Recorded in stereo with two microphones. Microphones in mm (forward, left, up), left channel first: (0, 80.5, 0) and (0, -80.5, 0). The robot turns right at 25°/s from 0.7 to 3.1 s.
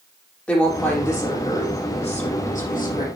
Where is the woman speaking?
5° left, 6.5 m; by 3.1 s 65° left, 6.5 m.